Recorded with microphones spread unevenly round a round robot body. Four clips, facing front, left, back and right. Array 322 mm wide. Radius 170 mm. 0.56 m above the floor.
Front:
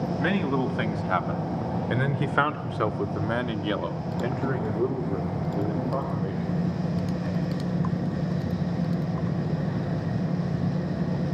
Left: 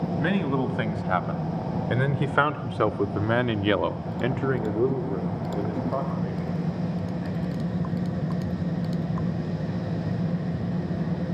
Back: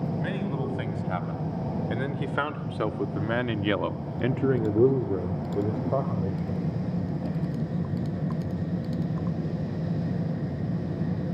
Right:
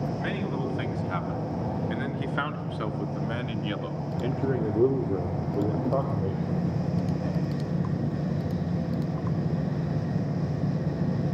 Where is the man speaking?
55° left, 4 m; by 7.4 s 140° right, 3.5 m.